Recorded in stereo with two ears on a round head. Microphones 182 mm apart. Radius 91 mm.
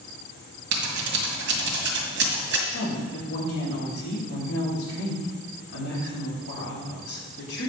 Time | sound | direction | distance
0.7 | scissors | 60° right (ahead or behind) | 1.9 m
2.7 | a woman speaking | 80° left | 2.5 m